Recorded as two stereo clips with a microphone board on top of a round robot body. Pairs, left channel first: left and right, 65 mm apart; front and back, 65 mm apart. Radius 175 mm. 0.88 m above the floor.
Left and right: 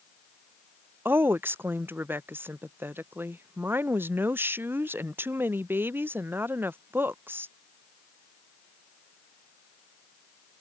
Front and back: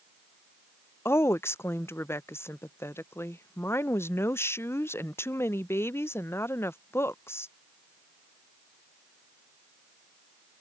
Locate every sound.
1.1 s a woman speaking: 40° right